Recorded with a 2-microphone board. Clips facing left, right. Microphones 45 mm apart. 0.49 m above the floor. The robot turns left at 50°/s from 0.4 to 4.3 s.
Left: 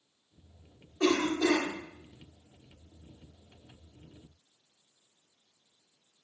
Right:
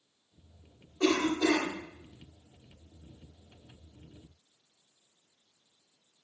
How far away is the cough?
About 0.9 m.